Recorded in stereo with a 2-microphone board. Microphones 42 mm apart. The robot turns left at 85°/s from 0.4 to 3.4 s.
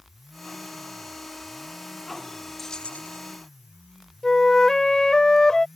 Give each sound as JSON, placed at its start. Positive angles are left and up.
{"t": 2.6, "sound": "keys jangling", "azimuth_deg": 175}
{"t": 4.2, "sound": "a flute", "side_deg": 10}